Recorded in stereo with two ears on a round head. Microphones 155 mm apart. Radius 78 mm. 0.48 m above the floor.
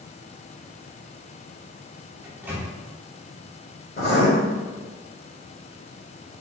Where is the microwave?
10° right (ahead or behind), 1.1 m.